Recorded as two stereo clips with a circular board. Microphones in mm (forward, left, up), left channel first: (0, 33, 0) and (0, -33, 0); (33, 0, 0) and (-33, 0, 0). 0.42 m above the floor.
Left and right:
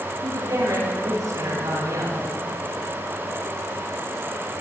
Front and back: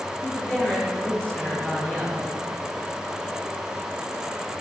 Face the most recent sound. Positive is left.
turn(degrees=-75)